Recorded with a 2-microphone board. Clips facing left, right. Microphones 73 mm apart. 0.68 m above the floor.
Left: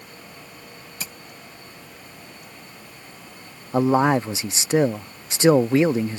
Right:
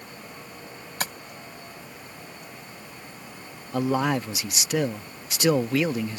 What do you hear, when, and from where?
1.0 s tapping: 60° right (ahead or behind)
3.7 s a man speaking: 25° left (ahead or behind)